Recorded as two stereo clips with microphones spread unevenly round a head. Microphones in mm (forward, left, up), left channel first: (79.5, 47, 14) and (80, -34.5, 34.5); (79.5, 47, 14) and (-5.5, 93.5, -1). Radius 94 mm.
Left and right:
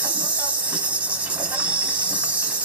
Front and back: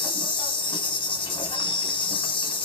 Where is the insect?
10° right, 1.5 m.